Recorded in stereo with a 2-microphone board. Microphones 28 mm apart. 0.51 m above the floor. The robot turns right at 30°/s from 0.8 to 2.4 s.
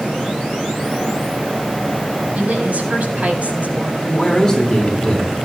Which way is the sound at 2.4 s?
65° right (ahead or behind).